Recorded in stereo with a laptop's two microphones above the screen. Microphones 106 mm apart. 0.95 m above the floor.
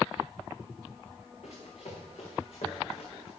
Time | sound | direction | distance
1.4 | running footsteps | 70° left (ahead or behind) | 4 m